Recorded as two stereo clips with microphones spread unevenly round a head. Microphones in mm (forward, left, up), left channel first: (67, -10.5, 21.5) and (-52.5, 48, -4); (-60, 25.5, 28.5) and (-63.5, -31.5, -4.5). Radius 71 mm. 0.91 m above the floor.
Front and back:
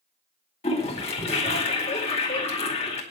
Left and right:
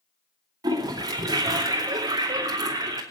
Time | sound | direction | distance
0.6 | a toilet flushing | 80° right | 2.5 m